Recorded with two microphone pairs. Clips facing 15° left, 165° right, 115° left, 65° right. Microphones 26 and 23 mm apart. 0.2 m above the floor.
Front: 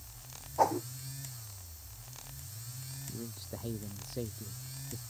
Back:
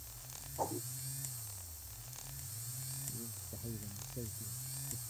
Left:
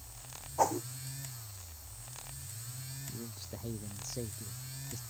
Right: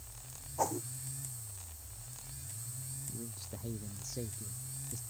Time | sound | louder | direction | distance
0.6 | a whoosh | front 11 dB, left 5 dB | 45° left | ?
3.1 | a man speaking | front 5 dB, left 1 dB | 35° left | ?